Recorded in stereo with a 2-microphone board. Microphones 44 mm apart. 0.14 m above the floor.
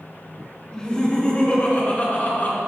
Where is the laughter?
15° left (ahead or behind), 1.4 m; by 2.6 s 45° left (ahead or behind), 1.7 m.